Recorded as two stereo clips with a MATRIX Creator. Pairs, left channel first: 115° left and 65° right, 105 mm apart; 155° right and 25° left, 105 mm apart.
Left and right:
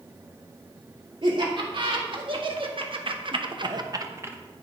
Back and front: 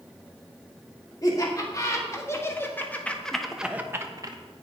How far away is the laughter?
About 2.5 m.